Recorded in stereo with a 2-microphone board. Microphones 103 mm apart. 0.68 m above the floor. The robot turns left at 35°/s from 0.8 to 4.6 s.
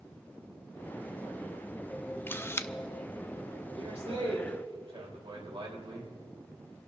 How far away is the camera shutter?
About 0.5 m.